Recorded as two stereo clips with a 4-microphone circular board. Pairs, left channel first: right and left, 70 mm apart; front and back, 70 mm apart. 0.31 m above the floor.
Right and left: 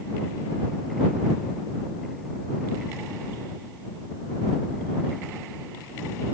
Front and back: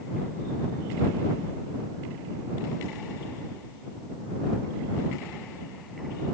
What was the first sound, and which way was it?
Only background noise.